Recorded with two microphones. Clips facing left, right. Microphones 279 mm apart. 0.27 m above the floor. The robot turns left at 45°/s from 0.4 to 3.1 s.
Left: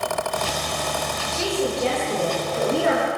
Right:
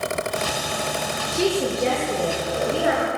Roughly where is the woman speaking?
Behind right.